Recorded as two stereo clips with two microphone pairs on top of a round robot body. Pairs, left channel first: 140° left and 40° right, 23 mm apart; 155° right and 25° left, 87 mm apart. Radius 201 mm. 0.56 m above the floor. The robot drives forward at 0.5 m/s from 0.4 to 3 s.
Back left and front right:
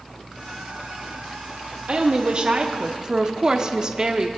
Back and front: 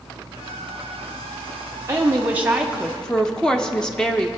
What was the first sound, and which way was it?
A woman speaking, 25° right.